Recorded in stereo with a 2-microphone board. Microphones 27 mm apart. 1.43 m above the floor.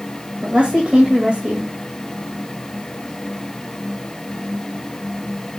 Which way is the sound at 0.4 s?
45° right (ahead or behind).